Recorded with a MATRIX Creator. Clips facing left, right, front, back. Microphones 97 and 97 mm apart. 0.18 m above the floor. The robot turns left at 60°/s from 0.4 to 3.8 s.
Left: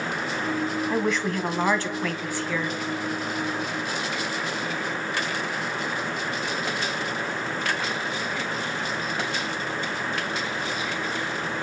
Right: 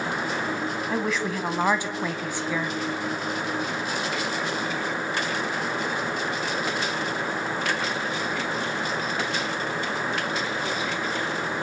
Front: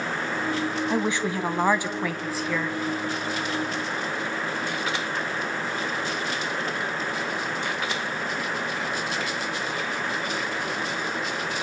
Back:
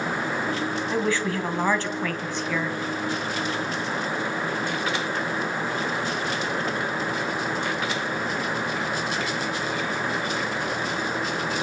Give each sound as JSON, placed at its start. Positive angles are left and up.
{"t": 0.9, "sound": "a woman speaking", "azimuth_deg": 5, "distance_m": 1.3}